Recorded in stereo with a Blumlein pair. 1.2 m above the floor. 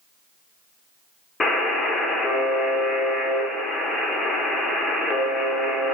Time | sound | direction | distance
1.4 | a buzzer | 15° left | 0.7 m